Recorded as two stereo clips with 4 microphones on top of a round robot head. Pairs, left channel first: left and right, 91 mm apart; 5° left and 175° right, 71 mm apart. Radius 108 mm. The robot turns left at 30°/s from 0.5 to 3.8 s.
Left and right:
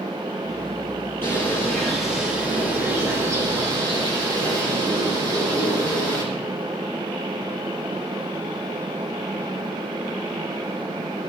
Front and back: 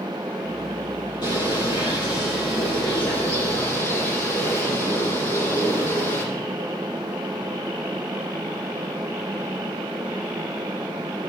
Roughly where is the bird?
Ahead.